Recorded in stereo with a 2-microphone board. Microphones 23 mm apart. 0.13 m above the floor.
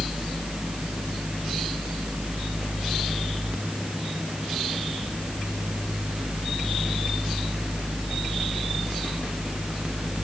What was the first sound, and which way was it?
Only background noise.